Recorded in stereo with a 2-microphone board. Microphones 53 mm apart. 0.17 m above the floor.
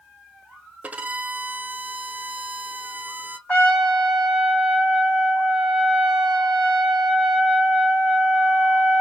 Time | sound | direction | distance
0.8 | a violin | 30° right (ahead or behind) | 0.6 m
3.5 | a trumpet | 20° left (ahead or behind) | 3 m